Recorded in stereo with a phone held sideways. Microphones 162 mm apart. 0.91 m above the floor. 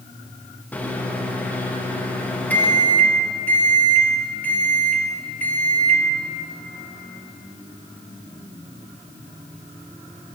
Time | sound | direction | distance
0.7 | a microwave | 10° left (ahead or behind) | 0.7 m